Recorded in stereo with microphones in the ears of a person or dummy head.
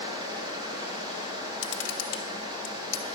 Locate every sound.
0.0 s a fan: 25° right (ahead or behind), 2.5 m
1.6 s a camera shutter: 65° left (ahead or behind), 1.0 m